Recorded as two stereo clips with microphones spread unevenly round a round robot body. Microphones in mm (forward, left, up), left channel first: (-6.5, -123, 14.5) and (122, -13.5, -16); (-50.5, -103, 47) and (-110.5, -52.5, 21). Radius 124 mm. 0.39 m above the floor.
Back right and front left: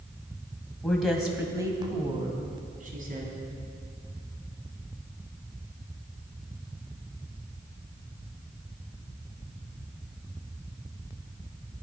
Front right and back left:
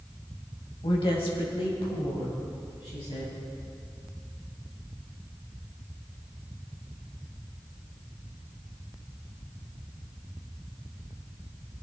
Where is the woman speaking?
50° right, 2.5 m; by 3.4 s 10° left, 3.5 m.